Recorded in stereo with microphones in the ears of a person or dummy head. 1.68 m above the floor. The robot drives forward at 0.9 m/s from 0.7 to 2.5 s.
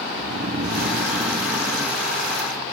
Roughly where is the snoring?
Right.